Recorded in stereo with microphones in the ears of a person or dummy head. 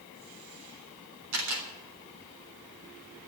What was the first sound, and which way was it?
A camera shutter, 80° right.